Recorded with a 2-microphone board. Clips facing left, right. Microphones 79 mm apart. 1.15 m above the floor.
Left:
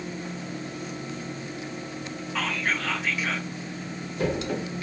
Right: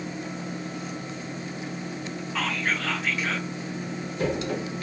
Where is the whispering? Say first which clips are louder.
Even; centre (ahead or behind), 0.8 m.